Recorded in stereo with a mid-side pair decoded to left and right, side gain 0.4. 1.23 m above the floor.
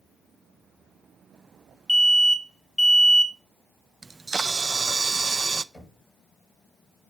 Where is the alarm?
10° left, 1.0 m.